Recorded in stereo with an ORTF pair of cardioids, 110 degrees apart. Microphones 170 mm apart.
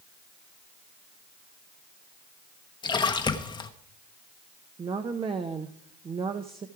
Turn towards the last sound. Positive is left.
turn(degrees=-30)